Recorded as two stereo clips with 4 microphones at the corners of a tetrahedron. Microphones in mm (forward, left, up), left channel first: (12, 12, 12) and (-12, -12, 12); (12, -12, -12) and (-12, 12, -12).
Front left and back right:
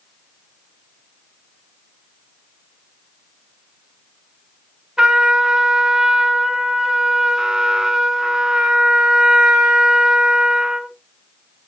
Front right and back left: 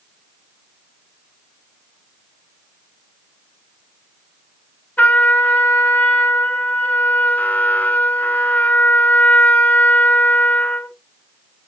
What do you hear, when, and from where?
5.0 s a trumpet: 70° right, 0.9 m